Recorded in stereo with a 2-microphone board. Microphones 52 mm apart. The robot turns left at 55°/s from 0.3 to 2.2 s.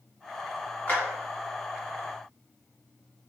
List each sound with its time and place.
0.9 s a clap: 35° left (ahead or behind), 1.8 m; by 1.0 s 40° left (ahead or behind), 1.8 m